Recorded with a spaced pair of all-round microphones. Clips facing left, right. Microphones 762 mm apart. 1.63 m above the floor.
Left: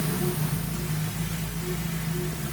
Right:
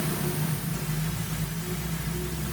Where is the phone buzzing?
I don't hear a phone buzzing.